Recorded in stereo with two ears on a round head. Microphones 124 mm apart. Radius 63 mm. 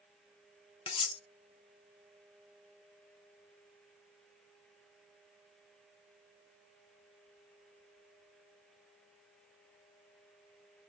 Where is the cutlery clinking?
35° left (ahead or behind), 0.5 m.